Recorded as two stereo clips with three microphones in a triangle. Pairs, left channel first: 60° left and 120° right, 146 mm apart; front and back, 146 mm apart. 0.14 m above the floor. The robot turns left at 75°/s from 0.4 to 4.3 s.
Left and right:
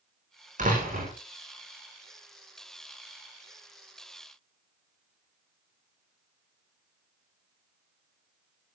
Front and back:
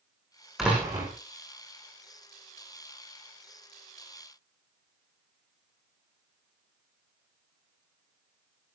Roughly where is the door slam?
Right.